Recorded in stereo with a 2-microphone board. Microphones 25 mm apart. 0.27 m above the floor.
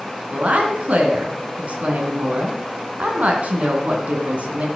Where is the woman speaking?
65° right (ahead or behind), 2.5 m.